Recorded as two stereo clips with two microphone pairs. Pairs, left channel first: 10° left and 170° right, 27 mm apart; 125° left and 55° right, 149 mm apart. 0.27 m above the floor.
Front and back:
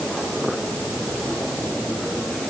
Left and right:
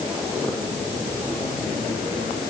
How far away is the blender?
No blender in this recording.